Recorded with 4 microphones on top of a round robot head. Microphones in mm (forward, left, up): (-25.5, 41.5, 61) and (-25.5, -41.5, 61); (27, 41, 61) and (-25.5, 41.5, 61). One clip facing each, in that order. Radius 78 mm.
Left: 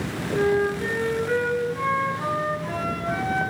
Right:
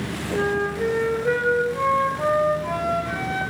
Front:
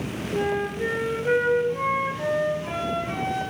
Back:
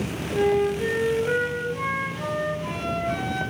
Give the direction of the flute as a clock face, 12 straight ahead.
2 o'clock.